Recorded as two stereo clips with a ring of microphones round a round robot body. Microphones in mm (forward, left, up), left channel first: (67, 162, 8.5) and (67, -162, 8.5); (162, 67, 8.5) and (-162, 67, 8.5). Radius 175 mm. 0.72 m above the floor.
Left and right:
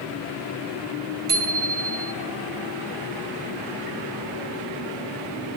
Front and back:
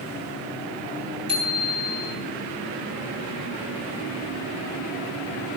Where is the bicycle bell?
105° right, 5.5 m.